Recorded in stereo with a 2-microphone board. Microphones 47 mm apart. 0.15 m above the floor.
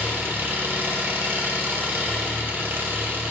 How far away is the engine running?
About 1.9 m.